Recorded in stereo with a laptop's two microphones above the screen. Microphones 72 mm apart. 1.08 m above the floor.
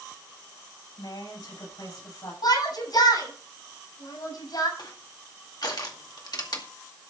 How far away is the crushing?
About 2 m.